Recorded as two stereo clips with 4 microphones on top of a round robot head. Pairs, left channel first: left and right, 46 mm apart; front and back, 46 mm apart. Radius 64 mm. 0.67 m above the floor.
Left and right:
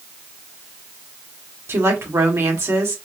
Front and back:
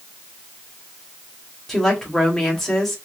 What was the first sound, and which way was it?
A woman speaking, 85° right.